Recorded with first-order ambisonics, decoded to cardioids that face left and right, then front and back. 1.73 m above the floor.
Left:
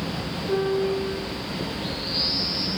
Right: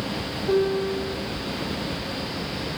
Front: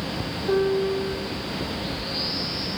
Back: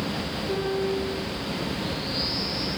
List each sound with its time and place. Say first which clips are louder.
0.5 s a piano: right 1 dB, front 6 dB; 30° right, 1.2 m